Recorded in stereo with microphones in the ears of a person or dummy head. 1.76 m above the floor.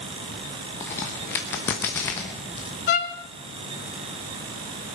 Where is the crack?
15° left (ahead or behind), 1.0 m.